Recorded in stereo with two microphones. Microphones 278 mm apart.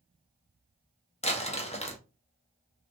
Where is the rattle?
I don't hear a rattle.